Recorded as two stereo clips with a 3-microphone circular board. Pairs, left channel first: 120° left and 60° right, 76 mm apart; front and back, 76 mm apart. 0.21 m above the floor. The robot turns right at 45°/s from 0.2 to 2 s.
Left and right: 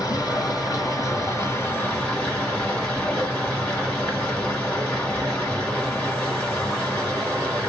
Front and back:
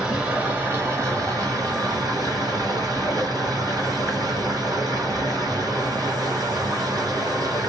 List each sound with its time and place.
0.0 s running water: 100° left, 2 m; by 7.7 s 175° right, 2 m